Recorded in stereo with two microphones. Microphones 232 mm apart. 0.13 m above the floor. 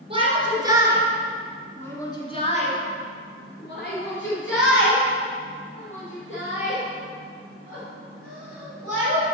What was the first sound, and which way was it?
A shout, 25° right (ahead or behind).